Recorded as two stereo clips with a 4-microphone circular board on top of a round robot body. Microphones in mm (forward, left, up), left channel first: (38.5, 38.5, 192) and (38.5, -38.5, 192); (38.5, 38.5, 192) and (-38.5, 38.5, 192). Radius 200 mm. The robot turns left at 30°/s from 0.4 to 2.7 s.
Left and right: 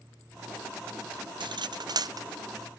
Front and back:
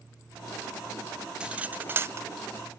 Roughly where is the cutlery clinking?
Right.